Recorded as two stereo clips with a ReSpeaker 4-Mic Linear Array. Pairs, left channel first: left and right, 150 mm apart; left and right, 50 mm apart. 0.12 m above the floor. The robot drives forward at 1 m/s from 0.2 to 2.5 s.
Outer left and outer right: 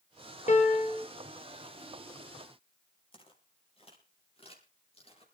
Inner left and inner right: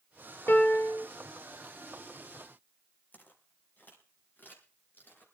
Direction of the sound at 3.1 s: 35° left (ahead or behind).